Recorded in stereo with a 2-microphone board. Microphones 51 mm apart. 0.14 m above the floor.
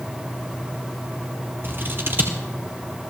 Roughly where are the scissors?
Right.